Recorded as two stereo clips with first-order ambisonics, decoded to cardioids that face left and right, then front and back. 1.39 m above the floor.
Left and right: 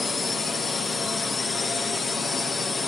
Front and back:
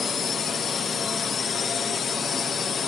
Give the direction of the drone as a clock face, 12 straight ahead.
11 o'clock.